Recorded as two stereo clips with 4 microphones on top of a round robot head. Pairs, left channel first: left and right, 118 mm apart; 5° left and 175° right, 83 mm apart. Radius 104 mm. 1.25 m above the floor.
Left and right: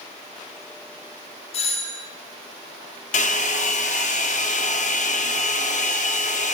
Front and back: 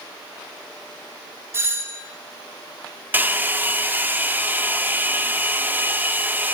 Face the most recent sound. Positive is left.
turn(degrees=120)